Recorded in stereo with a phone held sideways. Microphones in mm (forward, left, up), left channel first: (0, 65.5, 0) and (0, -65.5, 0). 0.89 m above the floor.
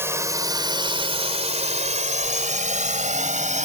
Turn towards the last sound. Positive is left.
turn(degrees=-75)  # may be behind; listen again after turning